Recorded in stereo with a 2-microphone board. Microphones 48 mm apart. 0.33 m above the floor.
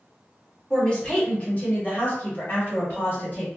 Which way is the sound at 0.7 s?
20° left (ahead or behind).